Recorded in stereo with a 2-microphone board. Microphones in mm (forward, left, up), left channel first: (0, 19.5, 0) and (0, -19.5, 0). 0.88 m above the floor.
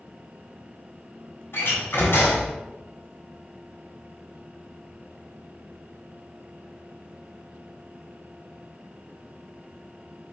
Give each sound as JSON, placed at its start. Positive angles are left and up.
{"t": 1.5, "sound": "a door slam", "side_deg": 75, "distance_m": 5.0}